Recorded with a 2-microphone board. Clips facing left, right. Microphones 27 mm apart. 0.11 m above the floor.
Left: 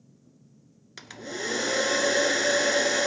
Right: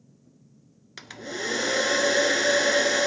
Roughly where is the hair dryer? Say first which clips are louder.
Right 1 dB; centre.